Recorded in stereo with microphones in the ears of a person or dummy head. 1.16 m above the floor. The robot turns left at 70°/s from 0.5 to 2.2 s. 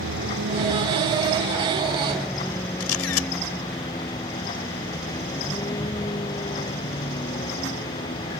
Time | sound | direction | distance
0.0 | a vehicle | 60° right (ahead or behind) | ?
2.8 | a camera shutter | 80° left | ?